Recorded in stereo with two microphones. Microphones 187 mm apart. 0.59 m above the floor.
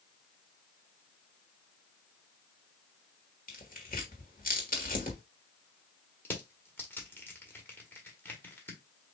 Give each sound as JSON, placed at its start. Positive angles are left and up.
{"t": 3.5, "sound": "tearing paper", "side_deg": 50, "distance_m": 1.4}
{"t": 6.2, "sound": "crushing", "side_deg": 10, "distance_m": 1.5}